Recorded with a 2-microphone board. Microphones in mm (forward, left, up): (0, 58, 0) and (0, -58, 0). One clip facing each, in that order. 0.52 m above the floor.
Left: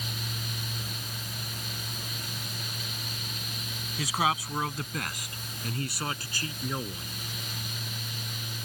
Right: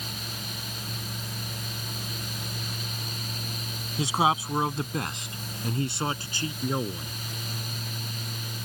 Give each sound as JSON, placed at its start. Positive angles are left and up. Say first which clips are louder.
{"t": 4.0, "sound": "a man speaking", "louder": "right 4 dB", "side_deg": -25}